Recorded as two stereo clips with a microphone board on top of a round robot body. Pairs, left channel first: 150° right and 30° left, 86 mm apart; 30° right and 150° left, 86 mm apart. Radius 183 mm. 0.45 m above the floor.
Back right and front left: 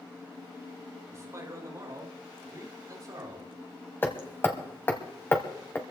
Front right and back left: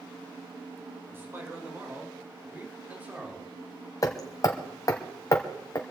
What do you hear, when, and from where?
1.1 s a man speaking: 85° left, 5 m; by 3.6 s 70° left, 3 m
4.0 s hammering: 80° right, 1.0 m